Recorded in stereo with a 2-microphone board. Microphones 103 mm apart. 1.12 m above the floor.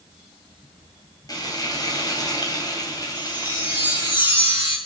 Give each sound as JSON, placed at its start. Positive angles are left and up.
{"t": 1.3, "sound": "frying", "side_deg": 35, "distance_m": 3.0}
{"t": 3.1, "sound": "a chime", "side_deg": 50, "distance_m": 5.0}